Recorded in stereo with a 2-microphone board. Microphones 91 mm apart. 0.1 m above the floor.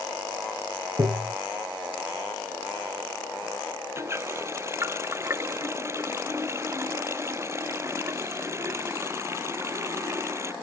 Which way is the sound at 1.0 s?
40° right (ahead or behind).